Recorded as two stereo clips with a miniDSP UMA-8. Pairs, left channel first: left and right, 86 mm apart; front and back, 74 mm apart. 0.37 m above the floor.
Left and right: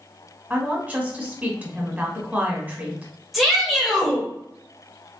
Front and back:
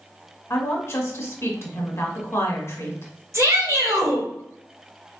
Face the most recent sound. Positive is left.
turn(degrees=180)